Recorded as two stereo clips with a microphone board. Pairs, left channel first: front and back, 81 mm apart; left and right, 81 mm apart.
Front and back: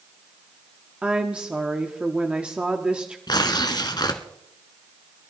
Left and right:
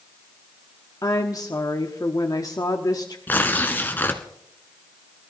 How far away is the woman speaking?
About 1.1 m.